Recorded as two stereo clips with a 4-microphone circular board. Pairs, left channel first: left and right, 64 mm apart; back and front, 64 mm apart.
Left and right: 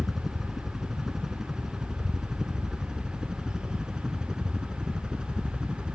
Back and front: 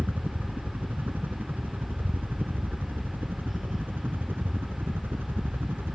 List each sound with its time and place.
0.0 s a helicopter: 10° right; by 6.0 s 25° right